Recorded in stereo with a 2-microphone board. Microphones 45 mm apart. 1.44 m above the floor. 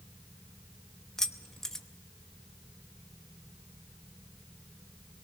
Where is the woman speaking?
No woman speaking in this recording.